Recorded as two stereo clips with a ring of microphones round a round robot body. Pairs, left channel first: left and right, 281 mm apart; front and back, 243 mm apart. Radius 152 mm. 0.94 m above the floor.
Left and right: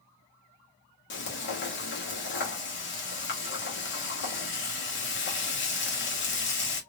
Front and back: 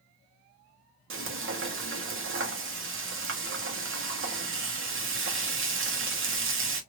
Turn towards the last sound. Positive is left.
turn(degrees=140)